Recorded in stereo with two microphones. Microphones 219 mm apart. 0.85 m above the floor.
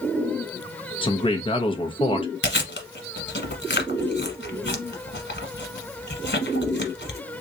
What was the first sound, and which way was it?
A man speaking, 25° left (ahead or behind).